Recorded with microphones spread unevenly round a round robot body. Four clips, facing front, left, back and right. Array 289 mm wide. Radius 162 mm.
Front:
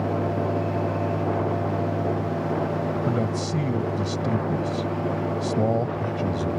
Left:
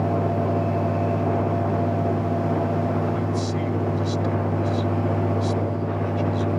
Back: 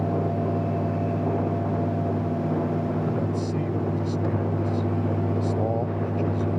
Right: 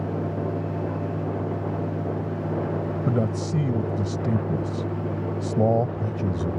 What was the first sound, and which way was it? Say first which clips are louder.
A man speaking: even, front 1 dB; 70° right.